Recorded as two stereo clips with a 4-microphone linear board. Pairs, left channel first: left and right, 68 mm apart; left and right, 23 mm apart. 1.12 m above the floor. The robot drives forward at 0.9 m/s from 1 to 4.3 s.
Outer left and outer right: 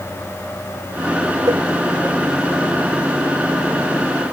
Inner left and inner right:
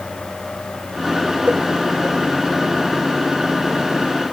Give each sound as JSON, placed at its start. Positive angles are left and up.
{"t": 1.5, "sound": "a cowbell", "side_deg": -85}